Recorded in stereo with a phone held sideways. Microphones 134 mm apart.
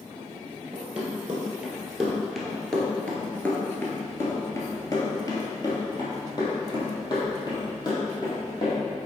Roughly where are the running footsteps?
Centre.